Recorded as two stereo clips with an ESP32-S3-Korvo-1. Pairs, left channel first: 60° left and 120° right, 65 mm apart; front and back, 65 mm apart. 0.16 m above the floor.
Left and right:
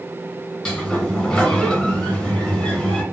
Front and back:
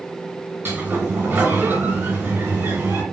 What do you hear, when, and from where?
0.7 s a sliding door: 135° left, 2 m